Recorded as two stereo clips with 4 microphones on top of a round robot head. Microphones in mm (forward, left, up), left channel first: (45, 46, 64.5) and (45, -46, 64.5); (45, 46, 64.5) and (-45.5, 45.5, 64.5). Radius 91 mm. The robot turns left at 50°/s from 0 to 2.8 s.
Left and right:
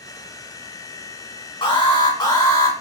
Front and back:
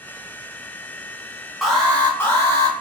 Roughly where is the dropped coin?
I don't hear a dropped coin.